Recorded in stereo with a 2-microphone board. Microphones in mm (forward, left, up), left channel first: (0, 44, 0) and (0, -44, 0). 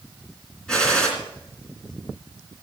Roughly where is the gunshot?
Centre.